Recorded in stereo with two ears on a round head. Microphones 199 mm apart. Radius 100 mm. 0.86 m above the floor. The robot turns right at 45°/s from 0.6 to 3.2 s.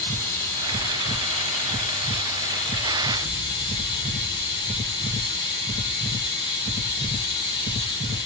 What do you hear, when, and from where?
0.0 s running water: 25° left, 0.8 m; by 8.3 s 140° left, 0.8 m